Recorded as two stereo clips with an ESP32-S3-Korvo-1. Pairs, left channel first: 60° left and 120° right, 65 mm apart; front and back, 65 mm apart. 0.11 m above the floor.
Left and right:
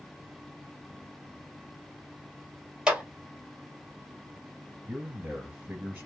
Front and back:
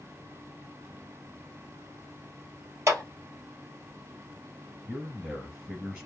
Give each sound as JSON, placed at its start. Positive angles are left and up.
{"t": 2.9, "sound": "a clap", "azimuth_deg": 165, "distance_m": 1.6}
{"t": 4.9, "sound": "a man speaking", "azimuth_deg": -115, "distance_m": 1.9}